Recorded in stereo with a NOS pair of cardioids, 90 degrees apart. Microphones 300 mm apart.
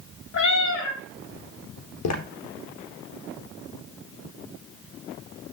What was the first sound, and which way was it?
A cat meowing, 70° left.